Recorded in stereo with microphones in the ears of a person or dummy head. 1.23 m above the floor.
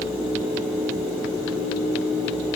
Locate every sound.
Only background noise.